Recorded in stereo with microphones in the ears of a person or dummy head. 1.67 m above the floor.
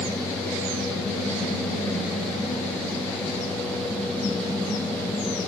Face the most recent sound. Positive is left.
No sound to turn to.